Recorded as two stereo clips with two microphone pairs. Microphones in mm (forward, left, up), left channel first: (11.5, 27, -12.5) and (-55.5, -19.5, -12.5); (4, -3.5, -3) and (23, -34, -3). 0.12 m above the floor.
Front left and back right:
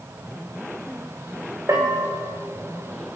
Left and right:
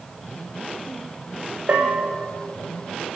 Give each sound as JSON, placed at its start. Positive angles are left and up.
{"t": 1.7, "sound": "a bell", "azimuth_deg": -95, "distance_m": 6.0}